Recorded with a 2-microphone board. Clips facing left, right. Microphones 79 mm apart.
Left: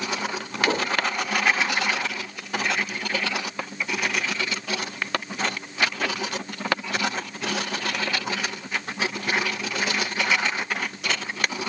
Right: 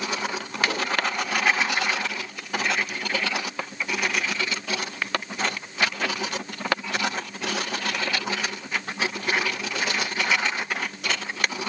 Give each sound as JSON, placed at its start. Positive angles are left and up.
{"t": 0.7, "sound": "a whoosh", "side_deg": 35, "distance_m": 1.6}